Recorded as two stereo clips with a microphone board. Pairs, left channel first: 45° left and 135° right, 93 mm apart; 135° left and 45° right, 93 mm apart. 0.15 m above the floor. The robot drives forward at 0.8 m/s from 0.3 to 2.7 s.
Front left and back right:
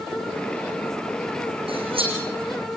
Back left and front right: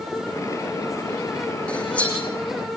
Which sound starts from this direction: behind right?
Cutlery clinking, at 1.7 s.